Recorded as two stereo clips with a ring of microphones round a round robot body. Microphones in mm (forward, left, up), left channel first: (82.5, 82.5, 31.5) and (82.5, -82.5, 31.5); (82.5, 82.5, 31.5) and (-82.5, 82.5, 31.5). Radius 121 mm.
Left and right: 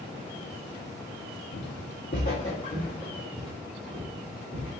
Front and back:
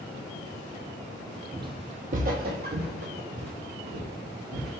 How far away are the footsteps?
About 0.6 m.